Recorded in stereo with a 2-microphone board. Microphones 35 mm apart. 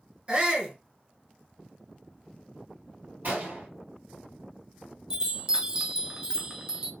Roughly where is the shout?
Right.